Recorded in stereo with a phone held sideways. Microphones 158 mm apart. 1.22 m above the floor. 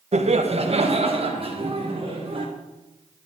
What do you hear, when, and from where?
0.1 s laughter: 45° right (ahead or behind), 0.9 m; by 2.5 s 40° right (ahead or behind), 2 m